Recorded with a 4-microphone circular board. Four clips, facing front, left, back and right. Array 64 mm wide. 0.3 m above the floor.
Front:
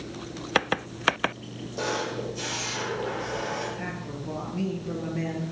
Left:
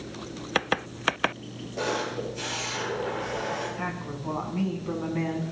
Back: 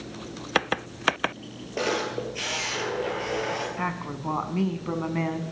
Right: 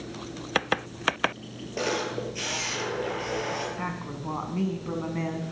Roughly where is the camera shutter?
Behind right.